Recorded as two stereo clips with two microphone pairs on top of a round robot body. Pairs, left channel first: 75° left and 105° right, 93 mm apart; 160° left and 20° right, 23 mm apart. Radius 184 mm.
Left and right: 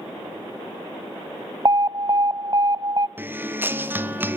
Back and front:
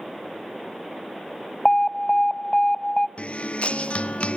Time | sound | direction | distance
1.6 | an alarm | 140° right | 0.8 m
3.2 | a guitar | 170° right | 1.7 m